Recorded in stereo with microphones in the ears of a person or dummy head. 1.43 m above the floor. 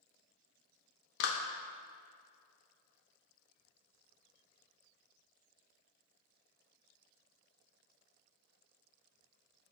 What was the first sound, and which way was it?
A clap, 60° left (ahead or behind).